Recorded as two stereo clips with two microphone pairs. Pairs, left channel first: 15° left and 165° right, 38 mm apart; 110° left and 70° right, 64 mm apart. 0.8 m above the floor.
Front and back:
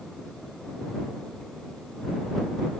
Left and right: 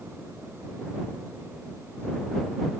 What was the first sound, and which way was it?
Only background noise.